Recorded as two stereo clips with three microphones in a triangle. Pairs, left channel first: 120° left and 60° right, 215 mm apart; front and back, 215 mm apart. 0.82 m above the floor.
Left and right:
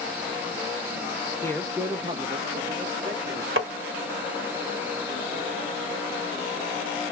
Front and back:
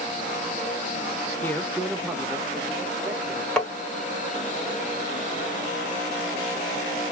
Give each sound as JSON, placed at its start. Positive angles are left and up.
{"t": 1.4, "sound": "a man speaking", "azimuth_deg": 65, "distance_m": 0.6}
{"t": 3.6, "sound": "tapping", "azimuth_deg": -85, "distance_m": 1.2}